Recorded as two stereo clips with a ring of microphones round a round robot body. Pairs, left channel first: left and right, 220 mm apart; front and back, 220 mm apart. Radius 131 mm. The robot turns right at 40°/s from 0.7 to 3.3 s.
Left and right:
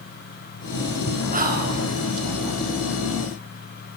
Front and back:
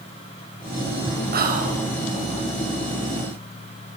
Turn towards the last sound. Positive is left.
turn(degrees=-60)